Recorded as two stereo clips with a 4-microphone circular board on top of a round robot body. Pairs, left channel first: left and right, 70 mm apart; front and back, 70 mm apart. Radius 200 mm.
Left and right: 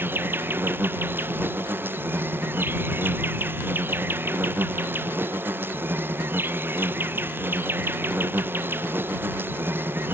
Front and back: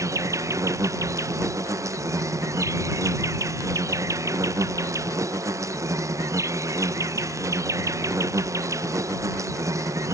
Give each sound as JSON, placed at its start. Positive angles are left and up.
{"t": 0.0, "sound": "an insect", "azimuth_deg": -145}